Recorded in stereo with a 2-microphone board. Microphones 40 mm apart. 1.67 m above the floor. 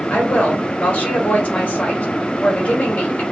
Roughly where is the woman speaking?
Left.